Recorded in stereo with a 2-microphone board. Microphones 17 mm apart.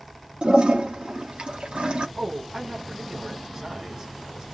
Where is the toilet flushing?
80° right, 0.9 m.